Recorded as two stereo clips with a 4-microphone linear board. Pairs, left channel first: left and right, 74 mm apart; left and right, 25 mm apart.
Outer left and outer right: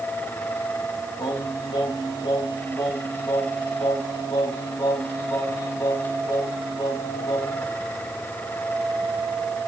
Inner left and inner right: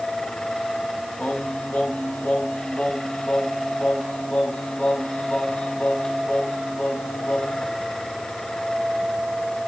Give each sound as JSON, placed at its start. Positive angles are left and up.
{"t": 1.2, "sound": "singing", "side_deg": 75, "distance_m": 5.0}